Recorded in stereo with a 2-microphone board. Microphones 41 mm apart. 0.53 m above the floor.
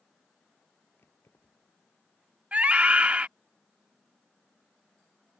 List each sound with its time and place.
1.0 s keys jangling: 70° left (ahead or behind)
2.5 s a scream: 30° right (ahead or behind)